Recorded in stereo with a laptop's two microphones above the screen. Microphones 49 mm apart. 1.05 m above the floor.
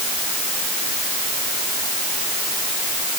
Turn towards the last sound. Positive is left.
No sound to turn to.